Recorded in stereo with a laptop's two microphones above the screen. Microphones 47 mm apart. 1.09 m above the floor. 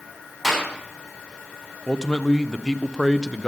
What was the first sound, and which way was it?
A clap, 5° left (ahead or behind).